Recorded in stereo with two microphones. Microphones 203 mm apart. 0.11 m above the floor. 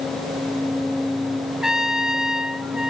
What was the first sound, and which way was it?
A trumpet, 5° right (ahead or behind).